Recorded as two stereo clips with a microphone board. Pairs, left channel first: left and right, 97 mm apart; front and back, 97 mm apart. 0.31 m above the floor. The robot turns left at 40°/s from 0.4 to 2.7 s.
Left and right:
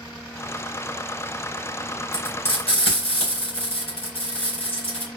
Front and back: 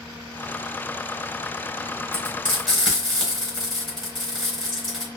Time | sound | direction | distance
2.1 | frying | 110° left | 3.5 m